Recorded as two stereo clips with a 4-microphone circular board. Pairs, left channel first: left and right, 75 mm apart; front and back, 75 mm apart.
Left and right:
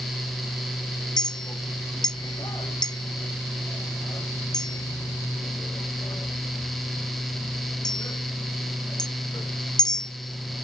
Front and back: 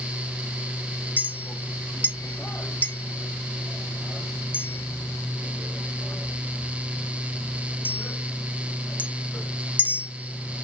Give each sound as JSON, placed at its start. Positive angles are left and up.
{"t": 1.2, "sound": "a clink", "azimuth_deg": 65, "distance_m": 0.5}